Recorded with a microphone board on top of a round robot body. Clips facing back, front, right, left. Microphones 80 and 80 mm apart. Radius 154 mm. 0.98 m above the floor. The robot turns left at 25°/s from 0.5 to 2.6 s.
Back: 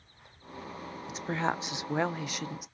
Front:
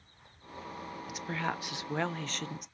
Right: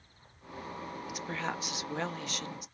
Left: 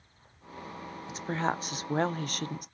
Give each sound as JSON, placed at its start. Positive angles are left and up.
{"t": 1.1, "sound": "a woman speaking", "azimuth_deg": 135, "distance_m": 0.5}